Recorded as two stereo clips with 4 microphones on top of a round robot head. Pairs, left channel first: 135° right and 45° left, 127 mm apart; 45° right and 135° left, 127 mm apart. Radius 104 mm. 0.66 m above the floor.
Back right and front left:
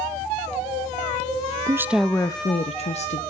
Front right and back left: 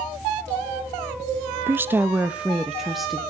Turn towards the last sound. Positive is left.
turn(degrees=-135)